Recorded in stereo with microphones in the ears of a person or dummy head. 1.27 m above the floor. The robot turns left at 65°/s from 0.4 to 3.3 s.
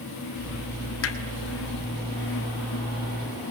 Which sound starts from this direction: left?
Hammering, at 1.0 s.